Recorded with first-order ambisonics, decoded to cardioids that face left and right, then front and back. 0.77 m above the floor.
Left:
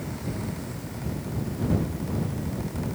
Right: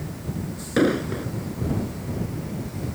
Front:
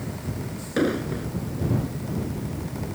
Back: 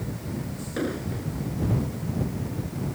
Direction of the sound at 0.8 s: 70° right.